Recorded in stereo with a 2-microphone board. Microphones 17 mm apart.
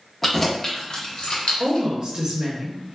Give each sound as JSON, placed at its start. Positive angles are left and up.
{"t": 0.2, "sound": "keys jangling", "side_deg": 5, "distance_m": 0.7}
{"t": 1.6, "sound": "a woman speaking", "side_deg": -40, "distance_m": 0.8}